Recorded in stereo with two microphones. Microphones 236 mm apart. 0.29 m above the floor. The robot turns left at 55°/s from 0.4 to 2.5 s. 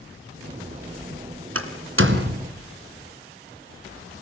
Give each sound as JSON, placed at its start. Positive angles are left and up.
{"t": 1.6, "sound": "a door slam", "side_deg": -70, "distance_m": 3.0}